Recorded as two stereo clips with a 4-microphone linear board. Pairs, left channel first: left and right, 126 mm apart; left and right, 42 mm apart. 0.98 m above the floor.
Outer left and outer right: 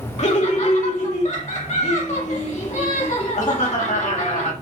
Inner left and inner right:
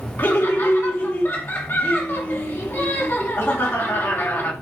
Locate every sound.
0.2 s laughter: 60° left (ahead or behind), 2.0 m